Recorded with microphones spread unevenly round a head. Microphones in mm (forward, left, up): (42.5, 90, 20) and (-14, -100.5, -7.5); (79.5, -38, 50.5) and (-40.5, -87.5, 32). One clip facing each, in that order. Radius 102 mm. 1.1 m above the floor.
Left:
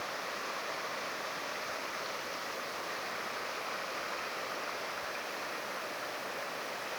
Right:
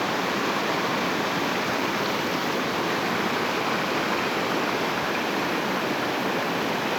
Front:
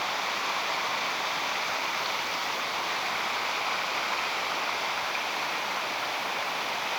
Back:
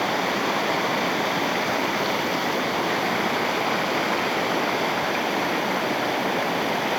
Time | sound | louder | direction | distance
0.0 | running water | right 16 dB, back 9 dB | 125° right | ?